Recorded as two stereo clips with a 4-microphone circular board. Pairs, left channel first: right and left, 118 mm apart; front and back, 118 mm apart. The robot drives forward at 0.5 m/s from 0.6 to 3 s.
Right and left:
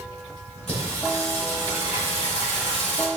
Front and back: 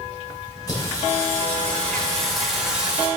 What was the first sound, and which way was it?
Singing, 60° right.